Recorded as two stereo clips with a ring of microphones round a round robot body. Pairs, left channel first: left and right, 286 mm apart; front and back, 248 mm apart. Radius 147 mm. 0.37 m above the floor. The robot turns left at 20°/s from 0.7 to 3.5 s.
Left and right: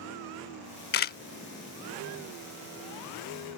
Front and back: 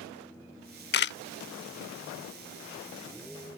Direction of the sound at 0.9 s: 40° left.